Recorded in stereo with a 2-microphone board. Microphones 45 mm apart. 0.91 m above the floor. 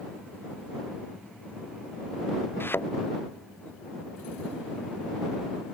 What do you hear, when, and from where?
2.6 s a thud: 55° left (ahead or behind)